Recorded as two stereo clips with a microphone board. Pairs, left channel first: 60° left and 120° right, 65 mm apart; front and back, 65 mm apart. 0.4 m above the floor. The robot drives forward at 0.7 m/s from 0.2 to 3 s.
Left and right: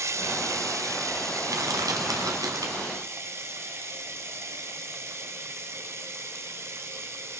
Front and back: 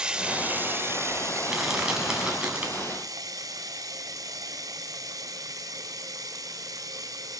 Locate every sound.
0.0 s running water: 110° right, 0.9 m; by 7.4 s 165° right, 2.5 m
1.5 s crushing: 95° right, 3.5 m; by 2.9 s 115° right, 3.5 m